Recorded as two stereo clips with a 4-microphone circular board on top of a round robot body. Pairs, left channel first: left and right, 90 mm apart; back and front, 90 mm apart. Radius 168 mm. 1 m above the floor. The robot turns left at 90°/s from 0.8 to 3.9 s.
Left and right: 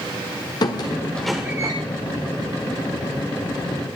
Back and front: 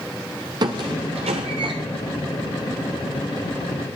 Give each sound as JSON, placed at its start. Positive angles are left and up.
{"t": 0.6, "sound": "a squeak", "azimuth_deg": 45, "distance_m": 1.0}